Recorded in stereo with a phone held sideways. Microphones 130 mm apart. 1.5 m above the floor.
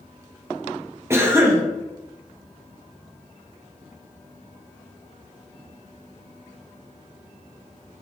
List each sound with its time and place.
1.1 s a cough: 20° right (ahead or behind), 0.8 m